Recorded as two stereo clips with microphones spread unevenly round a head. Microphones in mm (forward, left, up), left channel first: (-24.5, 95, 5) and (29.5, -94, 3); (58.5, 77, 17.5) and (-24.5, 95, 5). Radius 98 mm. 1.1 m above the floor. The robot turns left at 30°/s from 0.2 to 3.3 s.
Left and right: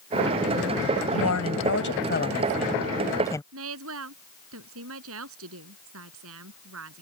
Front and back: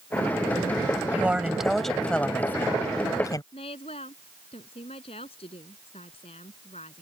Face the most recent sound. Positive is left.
turn(degrees=-55)